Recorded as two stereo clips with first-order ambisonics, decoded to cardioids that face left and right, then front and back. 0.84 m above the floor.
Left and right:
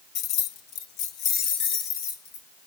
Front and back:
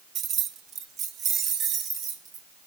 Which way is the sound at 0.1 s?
125° left.